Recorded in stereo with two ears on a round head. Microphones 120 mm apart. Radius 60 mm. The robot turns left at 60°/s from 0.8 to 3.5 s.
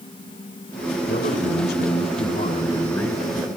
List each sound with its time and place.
1.1 s a man speaking: 130° left, 4 m; by 3.5 s 15° right, 4 m